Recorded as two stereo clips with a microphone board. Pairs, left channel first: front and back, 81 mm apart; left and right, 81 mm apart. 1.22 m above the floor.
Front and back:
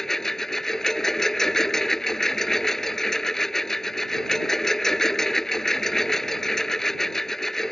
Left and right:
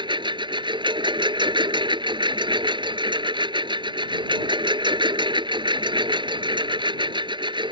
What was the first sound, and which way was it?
A lawn mower, 85° right.